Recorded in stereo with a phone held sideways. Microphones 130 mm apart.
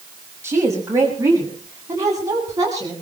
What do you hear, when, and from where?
0.4 s a woman speaking: 20° right (ahead or behind), 6 m; by 2.9 s 30° right (ahead or behind), 9.5 m